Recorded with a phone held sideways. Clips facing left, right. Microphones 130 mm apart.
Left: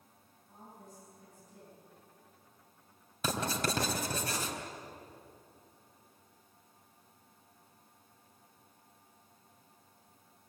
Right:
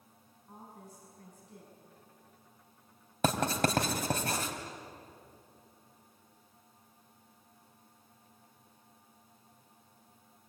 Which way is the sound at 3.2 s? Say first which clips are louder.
Right 5 dB; 60° right (ahead or behind).